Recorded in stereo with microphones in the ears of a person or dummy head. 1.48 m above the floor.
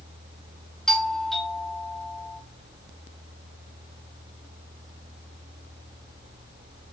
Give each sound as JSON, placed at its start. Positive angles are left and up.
{"t": 0.9, "sound": "a doorbell", "side_deg": 0, "distance_m": 3.5}